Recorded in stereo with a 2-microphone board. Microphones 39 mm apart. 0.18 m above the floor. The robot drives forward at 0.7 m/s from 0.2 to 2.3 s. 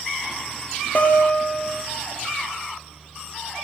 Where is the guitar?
50° left (ahead or behind), 2.5 m; by 1.8 s 40° left (ahead or behind), 3 m.